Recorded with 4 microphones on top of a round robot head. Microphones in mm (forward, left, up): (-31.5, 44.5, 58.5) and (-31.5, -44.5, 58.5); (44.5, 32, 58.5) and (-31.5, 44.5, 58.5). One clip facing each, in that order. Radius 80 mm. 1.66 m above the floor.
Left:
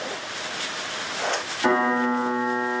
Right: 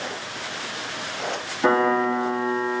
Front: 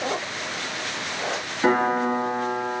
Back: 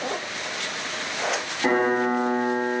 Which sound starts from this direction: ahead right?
A piano, at 1.6 s.